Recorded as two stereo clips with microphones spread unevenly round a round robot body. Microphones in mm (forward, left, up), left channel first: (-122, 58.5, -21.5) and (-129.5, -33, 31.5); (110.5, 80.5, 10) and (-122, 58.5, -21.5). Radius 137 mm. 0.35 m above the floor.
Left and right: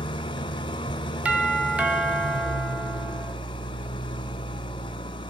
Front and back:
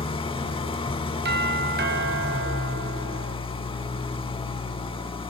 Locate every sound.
0.0 s an engine running: 75° left, 1.9 m
1.2 s a doorbell: 170° left, 3 m